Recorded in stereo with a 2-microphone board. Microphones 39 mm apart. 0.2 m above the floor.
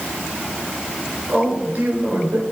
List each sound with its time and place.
1.3 s a man speaking: 50° right (ahead or behind), 3.5 m